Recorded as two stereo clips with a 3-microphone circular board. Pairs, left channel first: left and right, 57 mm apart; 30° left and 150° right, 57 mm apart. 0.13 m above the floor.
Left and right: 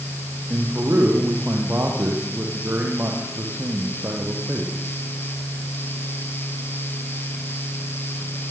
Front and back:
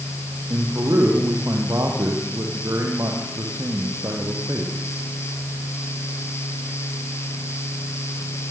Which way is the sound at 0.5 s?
135° right.